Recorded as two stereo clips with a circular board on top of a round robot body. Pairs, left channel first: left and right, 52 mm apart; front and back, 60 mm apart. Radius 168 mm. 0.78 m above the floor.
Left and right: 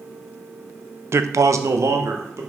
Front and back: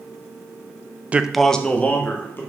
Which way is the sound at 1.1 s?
115° right.